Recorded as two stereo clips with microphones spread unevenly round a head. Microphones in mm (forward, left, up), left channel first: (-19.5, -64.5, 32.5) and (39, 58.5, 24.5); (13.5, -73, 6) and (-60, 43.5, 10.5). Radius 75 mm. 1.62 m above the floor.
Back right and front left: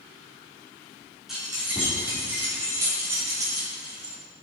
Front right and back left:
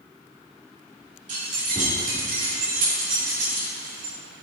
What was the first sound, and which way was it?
Keys jangling, 155° left.